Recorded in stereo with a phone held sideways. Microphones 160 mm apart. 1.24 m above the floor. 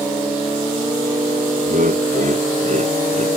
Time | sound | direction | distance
1.7 | laughter | 60° right (ahead or behind) | ?